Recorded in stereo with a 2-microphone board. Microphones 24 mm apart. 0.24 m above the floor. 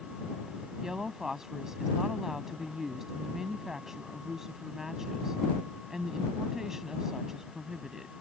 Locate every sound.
0.8 s a woman speaking: 20° right (ahead or behind)